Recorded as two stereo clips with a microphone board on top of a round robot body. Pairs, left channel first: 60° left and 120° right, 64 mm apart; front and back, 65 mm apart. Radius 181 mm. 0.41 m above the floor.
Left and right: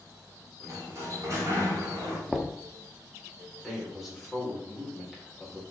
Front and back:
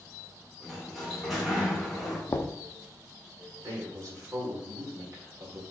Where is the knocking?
35° right, 0.7 m.